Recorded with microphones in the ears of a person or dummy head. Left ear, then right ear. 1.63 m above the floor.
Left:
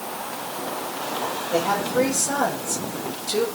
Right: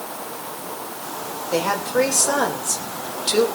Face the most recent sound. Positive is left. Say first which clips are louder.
# right 2 dB
turn(degrees=-85)